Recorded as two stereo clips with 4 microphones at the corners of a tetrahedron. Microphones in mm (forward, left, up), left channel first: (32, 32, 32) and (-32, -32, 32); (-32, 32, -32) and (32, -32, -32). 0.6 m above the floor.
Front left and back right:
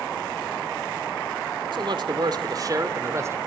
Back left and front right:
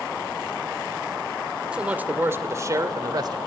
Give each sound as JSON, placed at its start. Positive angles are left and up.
{"t": 1.7, "sound": "a man speaking", "azimuth_deg": -120, "distance_m": 2.0}